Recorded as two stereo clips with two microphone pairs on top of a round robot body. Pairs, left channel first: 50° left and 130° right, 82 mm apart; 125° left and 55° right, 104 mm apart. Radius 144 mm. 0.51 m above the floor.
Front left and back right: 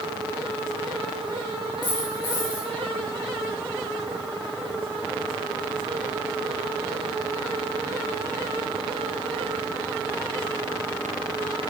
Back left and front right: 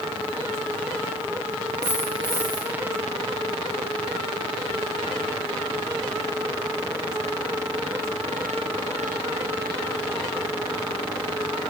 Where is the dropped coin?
15° left, 3 m.